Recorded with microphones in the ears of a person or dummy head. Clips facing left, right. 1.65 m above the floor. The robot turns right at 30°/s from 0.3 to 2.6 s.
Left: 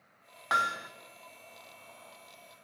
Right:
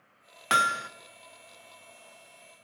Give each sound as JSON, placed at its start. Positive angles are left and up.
{"t": 0.5, "sound": "hammering", "side_deg": -40, "distance_m": 0.5}